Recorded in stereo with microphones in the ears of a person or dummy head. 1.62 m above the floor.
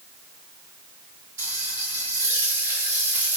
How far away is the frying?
About 2.5 m.